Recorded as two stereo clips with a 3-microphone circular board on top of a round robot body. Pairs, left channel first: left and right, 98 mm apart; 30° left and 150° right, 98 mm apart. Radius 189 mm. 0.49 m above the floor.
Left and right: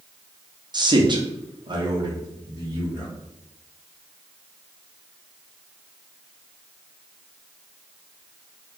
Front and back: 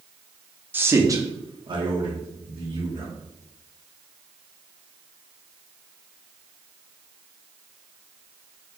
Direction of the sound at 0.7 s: 85° right.